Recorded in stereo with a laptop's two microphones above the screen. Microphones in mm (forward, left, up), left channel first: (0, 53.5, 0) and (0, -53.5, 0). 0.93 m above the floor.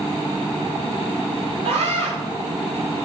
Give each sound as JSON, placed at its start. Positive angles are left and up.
{"t": 1.6, "sound": "a scream", "side_deg": -60, "distance_m": 6.5}